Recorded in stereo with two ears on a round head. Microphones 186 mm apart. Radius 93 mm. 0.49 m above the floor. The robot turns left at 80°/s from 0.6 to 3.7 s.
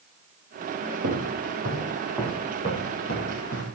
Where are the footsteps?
80° right, 3 m; by 3.6 s 75° left (ahead or behind), 5 m.